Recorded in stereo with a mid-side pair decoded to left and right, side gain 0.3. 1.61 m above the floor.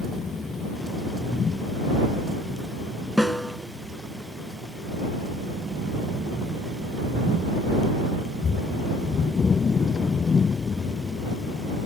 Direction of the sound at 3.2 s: Straight ahead.